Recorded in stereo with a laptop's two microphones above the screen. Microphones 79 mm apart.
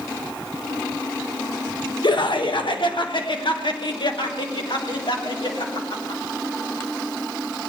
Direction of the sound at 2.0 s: 65° left (ahead or behind).